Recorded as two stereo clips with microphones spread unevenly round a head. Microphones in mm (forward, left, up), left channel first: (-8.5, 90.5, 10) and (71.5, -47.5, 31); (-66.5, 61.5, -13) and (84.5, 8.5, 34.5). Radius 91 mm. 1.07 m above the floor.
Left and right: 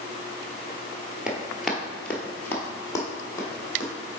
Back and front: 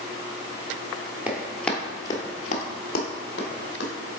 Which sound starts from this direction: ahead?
Running footsteps, at 1.3 s.